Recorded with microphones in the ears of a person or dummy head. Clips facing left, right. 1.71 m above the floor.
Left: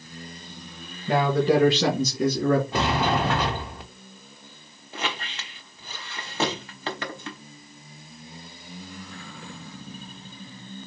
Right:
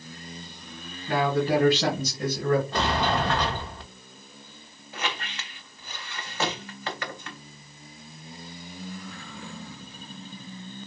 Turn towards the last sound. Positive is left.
turn(degrees=25)  # may be behind; listen again after turning